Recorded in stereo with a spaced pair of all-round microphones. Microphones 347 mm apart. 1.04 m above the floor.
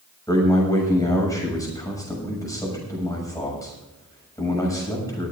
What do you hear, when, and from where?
0.3 s a man speaking: 10° left (ahead or behind), 6.5 m